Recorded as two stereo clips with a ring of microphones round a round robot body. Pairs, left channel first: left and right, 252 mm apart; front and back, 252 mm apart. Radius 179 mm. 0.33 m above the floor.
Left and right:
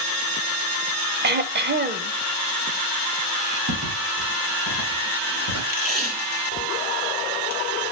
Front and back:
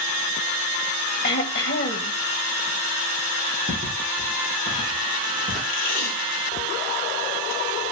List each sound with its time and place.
1.2 s throat clearing: 45° right, 0.8 m
3.7 s footsteps: 110° right, 4 m; by 5.6 s 90° right, 6 m
5.7 s tape being pulled: 40° right, 2 m